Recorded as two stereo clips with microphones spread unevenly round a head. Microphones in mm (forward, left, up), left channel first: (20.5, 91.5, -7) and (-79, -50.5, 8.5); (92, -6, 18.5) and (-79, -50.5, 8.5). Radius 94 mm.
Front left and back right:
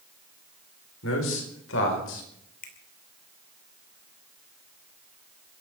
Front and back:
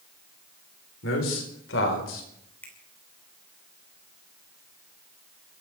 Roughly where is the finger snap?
Left.